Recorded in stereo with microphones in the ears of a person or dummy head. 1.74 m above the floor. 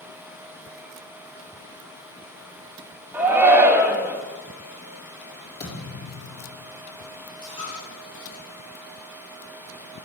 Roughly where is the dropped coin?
Left.